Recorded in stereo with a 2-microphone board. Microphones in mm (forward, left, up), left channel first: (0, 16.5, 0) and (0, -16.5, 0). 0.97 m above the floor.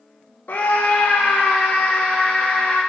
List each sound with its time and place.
0.5 s a scream: 60° left (ahead or behind), 0.8 m